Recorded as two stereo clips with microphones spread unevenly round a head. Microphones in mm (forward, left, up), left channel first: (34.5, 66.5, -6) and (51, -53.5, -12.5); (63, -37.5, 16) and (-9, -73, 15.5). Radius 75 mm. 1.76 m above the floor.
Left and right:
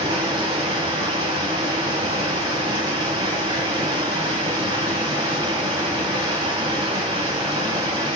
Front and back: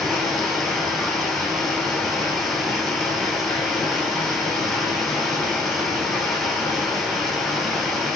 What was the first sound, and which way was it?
Running water, 60° right.